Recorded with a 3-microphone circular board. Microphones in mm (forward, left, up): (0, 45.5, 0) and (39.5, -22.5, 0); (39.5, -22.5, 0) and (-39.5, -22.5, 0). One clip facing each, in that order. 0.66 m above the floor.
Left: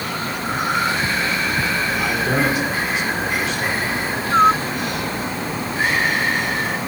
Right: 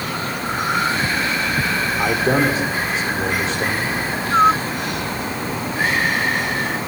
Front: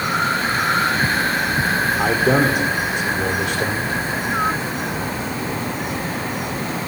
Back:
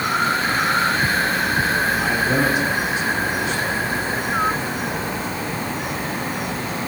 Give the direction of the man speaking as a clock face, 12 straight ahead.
12 o'clock.